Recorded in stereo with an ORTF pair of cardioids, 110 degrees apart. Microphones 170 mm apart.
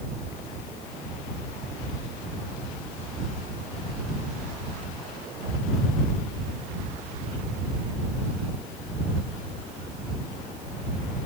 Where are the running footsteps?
I don't hear running footsteps.